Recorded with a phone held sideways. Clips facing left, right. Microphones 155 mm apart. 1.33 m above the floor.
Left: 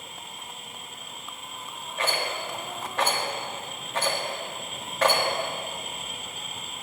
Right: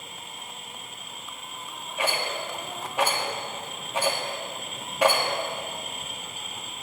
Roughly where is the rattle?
Centre.